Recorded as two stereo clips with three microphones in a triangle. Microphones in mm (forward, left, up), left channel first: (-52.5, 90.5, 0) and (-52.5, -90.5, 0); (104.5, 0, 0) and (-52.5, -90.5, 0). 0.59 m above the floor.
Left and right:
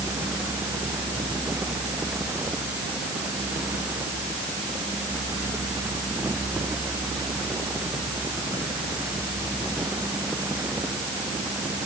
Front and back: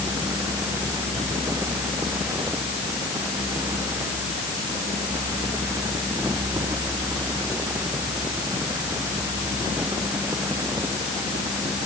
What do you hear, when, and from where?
Only background noise.